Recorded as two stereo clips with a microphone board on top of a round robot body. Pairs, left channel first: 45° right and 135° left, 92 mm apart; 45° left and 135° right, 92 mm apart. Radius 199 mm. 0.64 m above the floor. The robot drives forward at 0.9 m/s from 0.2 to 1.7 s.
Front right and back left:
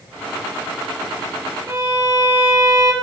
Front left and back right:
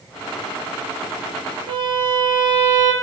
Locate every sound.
1.7 s a violin: 165° right, 1.8 m